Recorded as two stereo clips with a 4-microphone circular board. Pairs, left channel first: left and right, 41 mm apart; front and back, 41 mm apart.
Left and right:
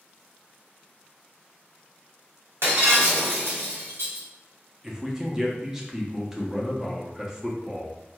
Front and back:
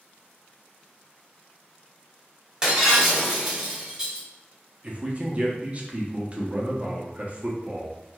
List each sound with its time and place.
2.6 s breaking glass: 105° right, 1.2 m
4.8 s a man speaking: 160° right, 0.7 m